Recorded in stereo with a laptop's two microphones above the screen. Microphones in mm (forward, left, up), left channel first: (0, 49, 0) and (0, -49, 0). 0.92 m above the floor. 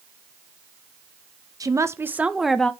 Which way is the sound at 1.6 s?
35° right (ahead or behind).